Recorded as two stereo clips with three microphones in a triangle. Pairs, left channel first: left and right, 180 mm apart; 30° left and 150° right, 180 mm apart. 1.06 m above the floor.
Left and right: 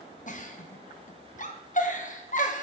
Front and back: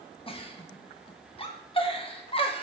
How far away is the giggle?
About 0.9 m.